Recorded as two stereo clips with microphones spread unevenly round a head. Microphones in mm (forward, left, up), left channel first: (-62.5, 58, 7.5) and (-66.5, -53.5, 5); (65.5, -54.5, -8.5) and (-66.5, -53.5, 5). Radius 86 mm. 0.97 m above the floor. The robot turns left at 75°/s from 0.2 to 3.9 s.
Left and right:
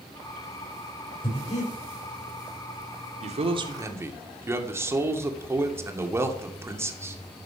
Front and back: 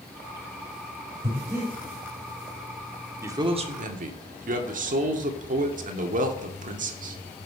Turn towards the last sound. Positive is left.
turn(degrees=-160)